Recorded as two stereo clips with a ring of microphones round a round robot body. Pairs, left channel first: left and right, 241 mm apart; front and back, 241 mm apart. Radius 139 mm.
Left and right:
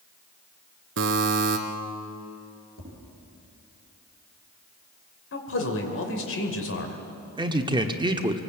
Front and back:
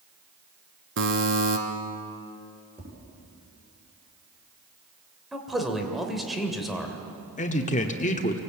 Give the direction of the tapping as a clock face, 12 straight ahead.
9 o'clock.